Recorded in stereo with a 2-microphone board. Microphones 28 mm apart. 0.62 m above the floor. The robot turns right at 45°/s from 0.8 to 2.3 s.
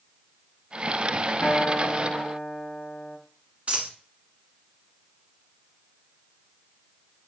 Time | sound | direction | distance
1.4 | a guitar | 70° left | 1.2 m
3.7 | a dropped coin | 55° right (ahead or behind) | 1.2 m